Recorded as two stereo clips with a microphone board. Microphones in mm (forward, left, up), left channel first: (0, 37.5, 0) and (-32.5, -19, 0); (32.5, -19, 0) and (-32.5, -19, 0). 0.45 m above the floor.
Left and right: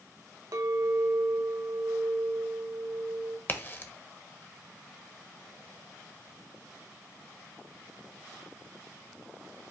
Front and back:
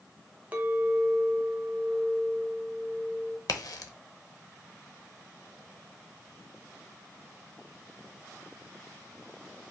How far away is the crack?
About 0.7 m.